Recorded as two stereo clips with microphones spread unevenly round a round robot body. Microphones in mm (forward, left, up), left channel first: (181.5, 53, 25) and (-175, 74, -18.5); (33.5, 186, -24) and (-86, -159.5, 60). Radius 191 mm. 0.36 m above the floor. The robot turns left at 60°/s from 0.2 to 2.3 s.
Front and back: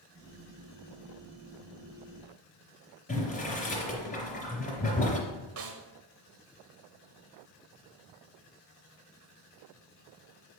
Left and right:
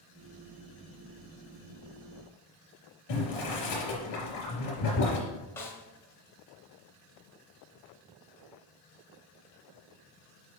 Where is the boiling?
65° left, 3 m.